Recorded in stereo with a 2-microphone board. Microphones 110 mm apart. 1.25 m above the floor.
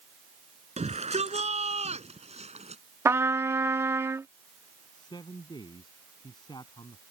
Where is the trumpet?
25° right (ahead or behind).